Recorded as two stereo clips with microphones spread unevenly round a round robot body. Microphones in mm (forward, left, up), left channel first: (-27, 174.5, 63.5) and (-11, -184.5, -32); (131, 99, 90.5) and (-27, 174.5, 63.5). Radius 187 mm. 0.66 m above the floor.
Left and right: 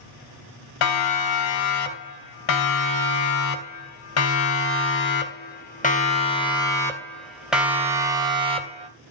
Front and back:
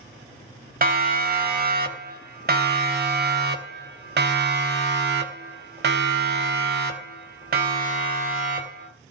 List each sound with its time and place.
0.8 s a siren: 120° left, 4 m; by 8.9 s 155° right, 2.5 m